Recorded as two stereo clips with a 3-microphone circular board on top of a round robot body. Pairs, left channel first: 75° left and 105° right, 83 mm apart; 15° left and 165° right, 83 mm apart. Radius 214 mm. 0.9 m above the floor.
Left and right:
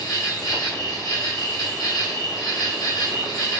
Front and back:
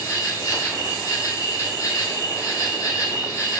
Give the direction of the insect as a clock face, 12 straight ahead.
10 o'clock.